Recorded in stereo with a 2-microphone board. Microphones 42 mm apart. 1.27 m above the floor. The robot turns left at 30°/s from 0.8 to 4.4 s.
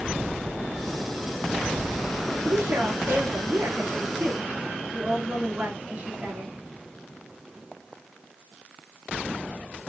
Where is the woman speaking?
95° right, 2.5 m; by 6.5 s 150° right, 2.5 m.